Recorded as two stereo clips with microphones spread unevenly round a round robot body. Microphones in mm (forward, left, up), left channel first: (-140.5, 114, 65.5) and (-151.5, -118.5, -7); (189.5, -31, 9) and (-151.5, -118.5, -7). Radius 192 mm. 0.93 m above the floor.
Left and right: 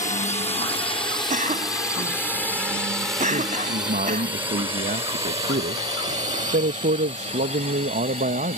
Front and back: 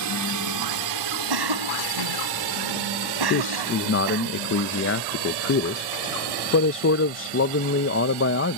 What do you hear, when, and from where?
0.0 s a drone: 155° left; by 8.6 s 150° right
1.3 s a cough: 150° right
3.3 s a man speaking: 40° right